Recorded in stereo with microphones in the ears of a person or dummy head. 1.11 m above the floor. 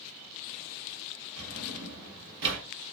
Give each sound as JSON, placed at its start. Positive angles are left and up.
{"t": 1.4, "sound": "a drawer", "side_deg": -70, "distance_m": 1.7}